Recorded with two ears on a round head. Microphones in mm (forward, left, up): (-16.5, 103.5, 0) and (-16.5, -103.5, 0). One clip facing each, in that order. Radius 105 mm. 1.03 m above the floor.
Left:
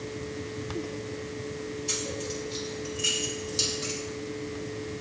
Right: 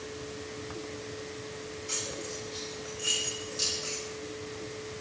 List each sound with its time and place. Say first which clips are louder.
1.9 s keys jangling: left 5 dB; 85° left, 5.5 m; by 4.0 s 80° left, 6.5 m